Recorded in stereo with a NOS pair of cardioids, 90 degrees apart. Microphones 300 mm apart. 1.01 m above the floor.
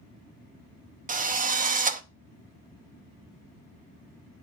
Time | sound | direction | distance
1.1 | a drill | 25° right | 0.8 m